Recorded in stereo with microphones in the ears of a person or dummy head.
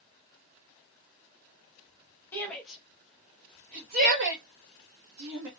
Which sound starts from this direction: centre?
A shout, at 2.3 s.